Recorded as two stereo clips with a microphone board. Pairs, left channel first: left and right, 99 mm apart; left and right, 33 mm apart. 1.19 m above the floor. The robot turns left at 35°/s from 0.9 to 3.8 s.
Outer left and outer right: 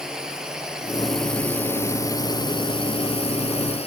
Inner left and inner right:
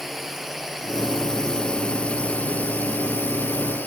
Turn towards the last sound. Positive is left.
turn(degrees=85)